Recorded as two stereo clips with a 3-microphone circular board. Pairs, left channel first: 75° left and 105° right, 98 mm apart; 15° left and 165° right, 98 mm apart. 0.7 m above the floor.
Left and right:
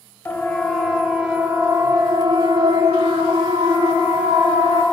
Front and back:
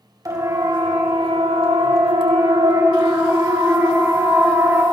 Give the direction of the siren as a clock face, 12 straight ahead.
7 o'clock.